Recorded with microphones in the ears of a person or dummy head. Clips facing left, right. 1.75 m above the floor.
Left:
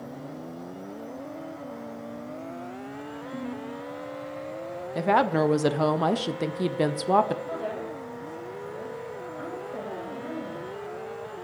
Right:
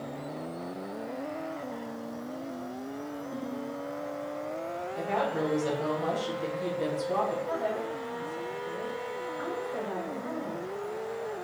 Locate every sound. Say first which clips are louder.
3.3 s a ringtone: left 3 dB; 10° right (ahead or behind), 3 m
5.0 s a woman speaking: left 8 dB; 80° left, 0.8 m
7.5 s a woman speaking: right 1 dB; 20° left (ahead or behind), 4 m